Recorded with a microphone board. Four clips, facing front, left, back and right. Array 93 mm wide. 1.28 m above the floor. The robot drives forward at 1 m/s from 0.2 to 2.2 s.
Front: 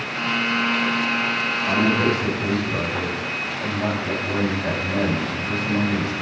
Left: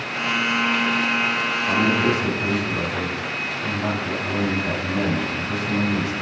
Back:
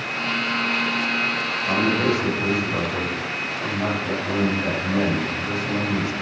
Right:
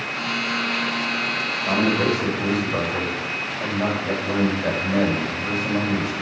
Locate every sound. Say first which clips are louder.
1.6 s a man speaking: even, front 1 dB; 90° right, 5.5 m; by 6.1 s 100° right, 5.5 m